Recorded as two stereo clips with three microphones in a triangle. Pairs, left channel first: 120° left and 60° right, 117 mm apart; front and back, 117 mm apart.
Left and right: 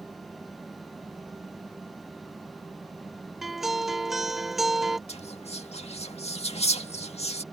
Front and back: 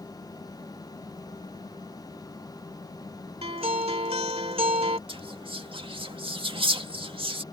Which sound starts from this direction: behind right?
A guitar, at 3.4 s.